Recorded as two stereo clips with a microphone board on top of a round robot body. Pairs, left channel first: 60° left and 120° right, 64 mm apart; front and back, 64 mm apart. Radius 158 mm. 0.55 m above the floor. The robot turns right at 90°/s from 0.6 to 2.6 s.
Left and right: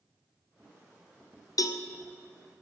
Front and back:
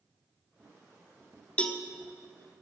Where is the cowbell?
70° left, 1.1 m; by 1.8 s 90° left, 1.1 m.